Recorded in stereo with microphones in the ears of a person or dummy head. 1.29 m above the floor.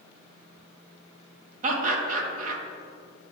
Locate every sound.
1.6 s laughter: 45° right (ahead or behind), 1.1 m